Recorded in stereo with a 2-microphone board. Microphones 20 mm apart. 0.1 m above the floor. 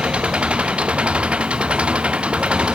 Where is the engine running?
85° right.